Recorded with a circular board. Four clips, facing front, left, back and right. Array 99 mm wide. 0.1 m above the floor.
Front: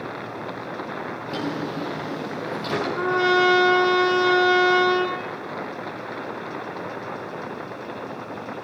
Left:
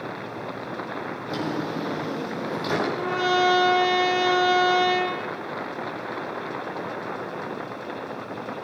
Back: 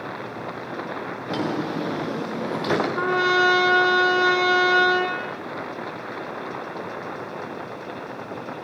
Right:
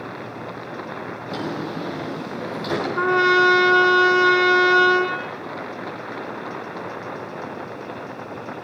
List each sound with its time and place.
1.3 s a drawer: 175° left, 7 m
3.0 s a trumpet: 105° right, 5 m